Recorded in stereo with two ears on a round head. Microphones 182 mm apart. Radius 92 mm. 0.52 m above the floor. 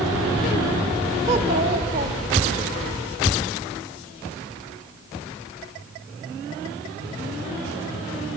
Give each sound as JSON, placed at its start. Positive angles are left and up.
{"t": 1.3, "sound": "a child speaking", "side_deg": -30, "distance_m": 1.3}